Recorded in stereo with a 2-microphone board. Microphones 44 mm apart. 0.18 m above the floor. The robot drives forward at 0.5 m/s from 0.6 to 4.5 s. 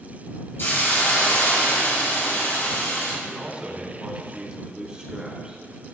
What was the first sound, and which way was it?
A hiss, 60° left (ahead or behind).